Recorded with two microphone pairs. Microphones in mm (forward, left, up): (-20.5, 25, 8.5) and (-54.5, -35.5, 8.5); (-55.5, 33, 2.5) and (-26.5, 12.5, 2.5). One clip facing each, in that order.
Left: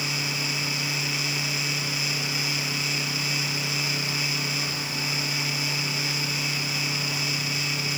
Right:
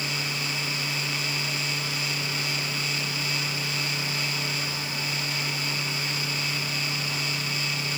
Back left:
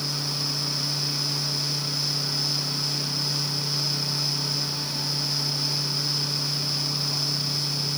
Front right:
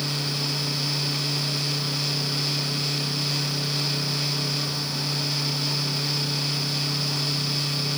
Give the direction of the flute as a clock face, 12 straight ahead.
I don't hear a flute.